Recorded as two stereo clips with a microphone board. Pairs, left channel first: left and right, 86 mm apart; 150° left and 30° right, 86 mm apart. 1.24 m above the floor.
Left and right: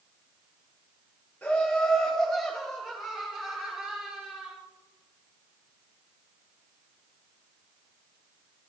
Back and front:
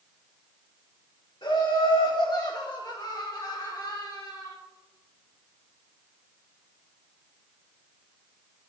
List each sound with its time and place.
1.4 s laughter: 160° left, 3 m; by 4.5 s 160° right, 4 m